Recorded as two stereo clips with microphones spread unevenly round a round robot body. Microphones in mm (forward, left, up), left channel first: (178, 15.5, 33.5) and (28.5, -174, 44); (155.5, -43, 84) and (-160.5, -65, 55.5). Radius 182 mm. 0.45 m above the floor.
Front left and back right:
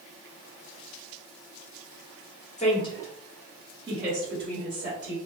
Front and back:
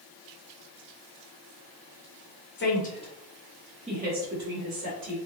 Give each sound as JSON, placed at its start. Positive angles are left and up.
{"t": 2.6, "sound": "a woman speaking", "azimuth_deg": 35, "distance_m": 1.1}